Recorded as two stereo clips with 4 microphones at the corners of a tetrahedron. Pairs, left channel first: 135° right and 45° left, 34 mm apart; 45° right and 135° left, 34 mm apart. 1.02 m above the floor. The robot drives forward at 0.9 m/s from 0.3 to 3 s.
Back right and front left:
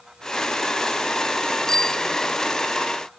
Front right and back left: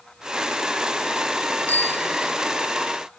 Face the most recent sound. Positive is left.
turn(degrees=-85)